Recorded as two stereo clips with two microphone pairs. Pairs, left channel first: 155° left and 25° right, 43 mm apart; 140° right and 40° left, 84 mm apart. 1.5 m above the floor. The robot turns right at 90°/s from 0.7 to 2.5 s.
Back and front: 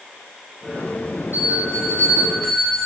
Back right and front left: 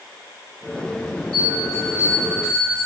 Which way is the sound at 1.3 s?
145° left.